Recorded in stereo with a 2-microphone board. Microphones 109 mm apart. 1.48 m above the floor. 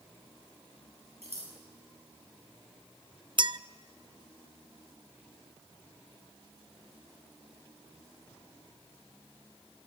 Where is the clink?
45° right (ahead or behind), 0.5 m.